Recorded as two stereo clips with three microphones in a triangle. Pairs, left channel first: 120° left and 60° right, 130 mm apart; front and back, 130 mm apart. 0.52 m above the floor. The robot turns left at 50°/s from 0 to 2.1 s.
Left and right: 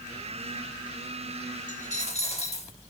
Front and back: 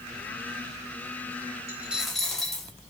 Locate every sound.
1.7 s a dropped coin: 110° left, 1.4 m; by 2.7 s 90° left, 1.4 m